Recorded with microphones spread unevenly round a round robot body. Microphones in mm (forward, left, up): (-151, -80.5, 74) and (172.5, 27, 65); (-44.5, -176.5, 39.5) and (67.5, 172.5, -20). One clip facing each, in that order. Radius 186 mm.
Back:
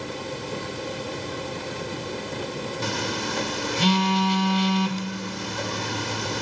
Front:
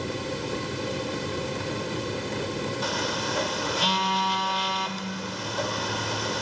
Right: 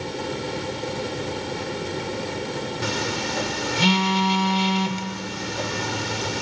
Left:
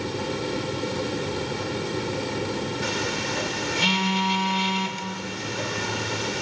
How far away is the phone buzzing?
About 0.7 m.